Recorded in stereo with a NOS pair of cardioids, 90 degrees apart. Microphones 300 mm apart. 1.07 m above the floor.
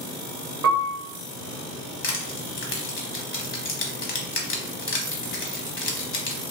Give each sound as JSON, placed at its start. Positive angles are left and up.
{"t": 0.6, "sound": "a piano", "azimuth_deg": -60, "distance_m": 1.0}
{"t": 2.0, "sound": "crushing", "azimuth_deg": 45, "distance_m": 1.1}